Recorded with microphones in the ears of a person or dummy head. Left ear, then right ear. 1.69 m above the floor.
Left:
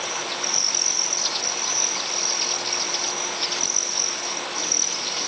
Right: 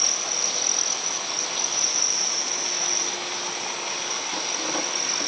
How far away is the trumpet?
I don't hear a trumpet.